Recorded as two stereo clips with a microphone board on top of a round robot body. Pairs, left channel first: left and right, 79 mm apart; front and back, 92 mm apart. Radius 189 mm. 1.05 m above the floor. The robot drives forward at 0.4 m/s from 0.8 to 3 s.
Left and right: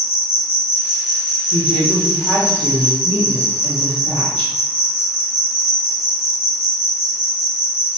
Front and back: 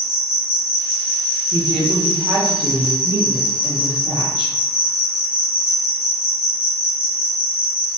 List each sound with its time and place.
0.0 s an insect: 25° right, 1.4 m; by 8.0 s 70° right, 0.9 m
1.5 s a woman speaking: 165° left, 0.8 m; by 4.5 s 175° left, 1.4 m